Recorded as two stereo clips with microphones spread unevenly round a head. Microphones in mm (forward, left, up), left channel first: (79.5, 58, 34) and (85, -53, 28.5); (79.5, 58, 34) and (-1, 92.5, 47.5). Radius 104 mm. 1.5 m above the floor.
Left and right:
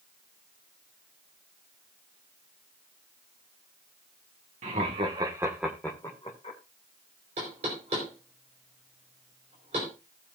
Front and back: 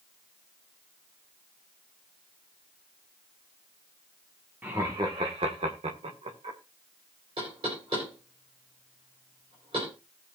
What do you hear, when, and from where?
4.6 s laughter: 125° right, 1.9 m; by 6.6 s 150° left, 2.5 m
7.4 s knocking: 145° right, 4.5 m